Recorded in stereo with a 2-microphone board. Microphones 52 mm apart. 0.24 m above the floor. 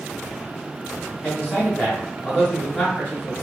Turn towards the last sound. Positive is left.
turn(degrees=20)  # may be behind; listen again after turning